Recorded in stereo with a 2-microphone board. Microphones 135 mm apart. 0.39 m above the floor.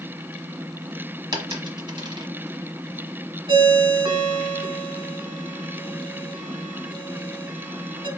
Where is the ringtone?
40° right (ahead or behind), 2.0 m.